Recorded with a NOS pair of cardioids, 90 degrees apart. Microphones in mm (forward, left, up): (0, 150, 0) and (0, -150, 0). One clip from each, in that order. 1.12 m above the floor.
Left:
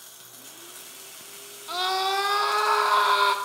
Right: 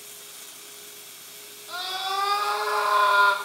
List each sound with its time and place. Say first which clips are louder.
1.7 s a scream: left 4 dB; 50° left, 3 m